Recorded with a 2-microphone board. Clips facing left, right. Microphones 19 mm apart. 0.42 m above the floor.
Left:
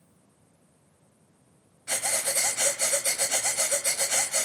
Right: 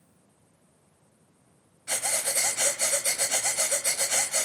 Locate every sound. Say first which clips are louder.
1.9 s breathing: left 1 dB; centre (ahead or behind), 1.3 m